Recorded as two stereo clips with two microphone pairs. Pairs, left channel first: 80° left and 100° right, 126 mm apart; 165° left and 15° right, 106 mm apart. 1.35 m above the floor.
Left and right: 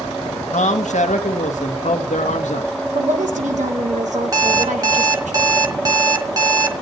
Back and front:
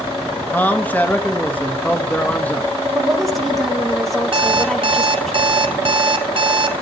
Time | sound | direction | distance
0.5 | a man speaking | 95° left | 1.5 m
3.0 | a woman speaking | 105° right | 2.5 m
4.3 | an alarm clock | 45° right | 1.5 m